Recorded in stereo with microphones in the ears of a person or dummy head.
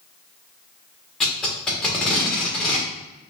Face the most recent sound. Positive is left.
turn(degrees=5)  # may be behind; listen again after turning